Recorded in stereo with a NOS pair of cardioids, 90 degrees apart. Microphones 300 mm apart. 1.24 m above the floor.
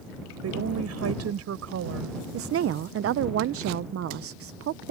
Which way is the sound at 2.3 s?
50° right.